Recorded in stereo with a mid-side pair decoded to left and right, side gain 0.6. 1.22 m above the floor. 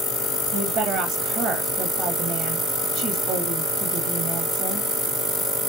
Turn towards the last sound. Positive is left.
turn(degrees=-50)